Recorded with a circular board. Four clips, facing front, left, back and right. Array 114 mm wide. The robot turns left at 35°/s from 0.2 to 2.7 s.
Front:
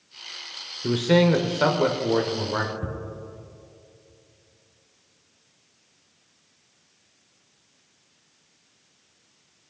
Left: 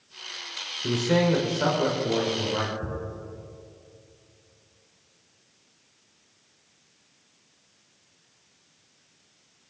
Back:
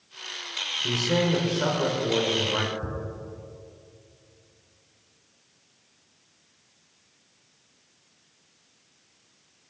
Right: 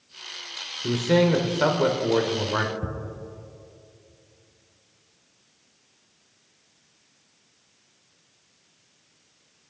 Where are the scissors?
I don't hear scissors.